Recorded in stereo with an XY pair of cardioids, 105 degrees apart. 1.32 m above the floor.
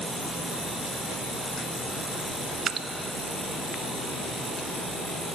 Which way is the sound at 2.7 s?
50° right.